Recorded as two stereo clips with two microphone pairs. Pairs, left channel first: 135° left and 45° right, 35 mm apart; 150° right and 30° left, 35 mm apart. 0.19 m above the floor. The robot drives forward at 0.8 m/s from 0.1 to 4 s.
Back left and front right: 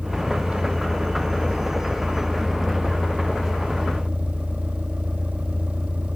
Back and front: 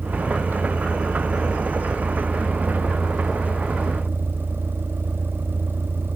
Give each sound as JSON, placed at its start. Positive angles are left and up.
{"t": 0.0, "sound": "a vehicle", "azimuth_deg": 15}